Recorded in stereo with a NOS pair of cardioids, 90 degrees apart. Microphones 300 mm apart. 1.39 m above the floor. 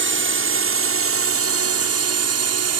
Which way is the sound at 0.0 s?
45° right.